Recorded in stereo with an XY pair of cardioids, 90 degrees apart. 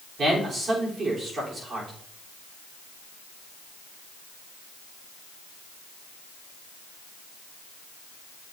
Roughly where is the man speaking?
Ahead right.